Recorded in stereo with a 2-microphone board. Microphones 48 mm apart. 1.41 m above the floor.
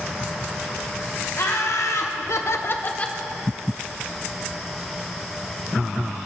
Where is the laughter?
65° left (ahead or behind), 1.7 m; by 3.2 s 15° left (ahead or behind), 0.8 m.